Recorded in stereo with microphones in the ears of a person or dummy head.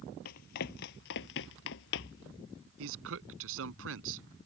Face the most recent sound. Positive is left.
turn(degrees=-75)  # may be behind; listen again after turning